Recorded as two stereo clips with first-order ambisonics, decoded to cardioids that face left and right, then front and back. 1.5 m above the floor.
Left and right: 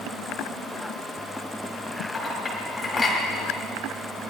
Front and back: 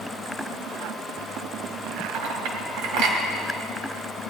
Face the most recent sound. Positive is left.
turn(degrees=165)